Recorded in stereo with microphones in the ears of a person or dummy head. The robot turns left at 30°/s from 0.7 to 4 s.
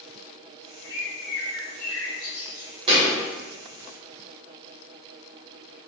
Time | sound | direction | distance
0.8 | a bird | 85° left | 1.9 m
2.9 | a thud | 30° right (ahead or behind) | 1.3 m